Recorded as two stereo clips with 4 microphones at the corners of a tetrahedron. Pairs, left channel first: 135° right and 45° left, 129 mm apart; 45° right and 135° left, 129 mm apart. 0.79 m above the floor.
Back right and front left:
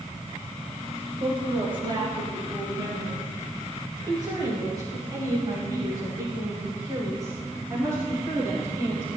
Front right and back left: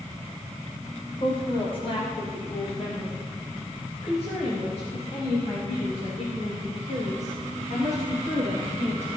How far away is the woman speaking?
About 5.5 m.